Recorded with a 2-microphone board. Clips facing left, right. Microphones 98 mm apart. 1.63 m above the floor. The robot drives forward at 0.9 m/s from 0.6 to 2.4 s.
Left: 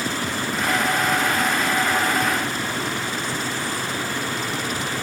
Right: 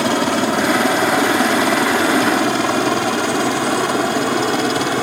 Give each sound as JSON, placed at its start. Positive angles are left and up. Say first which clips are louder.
{"t": 0.0, "sound": "a helicopter", "louder": "right 10 dB", "side_deg": -70}